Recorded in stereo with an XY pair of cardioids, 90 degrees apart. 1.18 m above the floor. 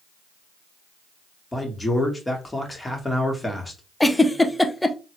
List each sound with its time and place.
1.5 s a man speaking: 15° left, 1.5 m
4.0 s a giggle: 5° left, 0.5 m